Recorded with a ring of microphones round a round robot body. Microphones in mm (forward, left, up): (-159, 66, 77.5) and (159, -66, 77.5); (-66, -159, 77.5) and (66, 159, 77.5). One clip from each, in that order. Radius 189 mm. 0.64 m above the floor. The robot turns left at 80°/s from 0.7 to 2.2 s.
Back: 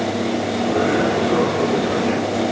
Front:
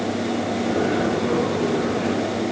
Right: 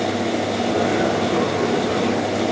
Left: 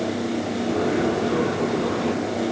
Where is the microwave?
No microwave in this recording.